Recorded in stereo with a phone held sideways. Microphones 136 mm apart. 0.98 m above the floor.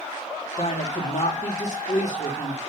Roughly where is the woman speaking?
Left.